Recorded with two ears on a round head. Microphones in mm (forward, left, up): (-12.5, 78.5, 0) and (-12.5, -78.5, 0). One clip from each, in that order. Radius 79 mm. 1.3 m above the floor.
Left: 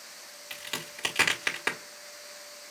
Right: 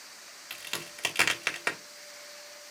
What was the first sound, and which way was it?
A crack, 15° right (ahead or behind).